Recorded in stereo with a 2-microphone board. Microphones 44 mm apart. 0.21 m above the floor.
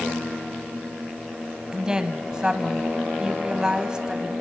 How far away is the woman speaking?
About 1.1 m.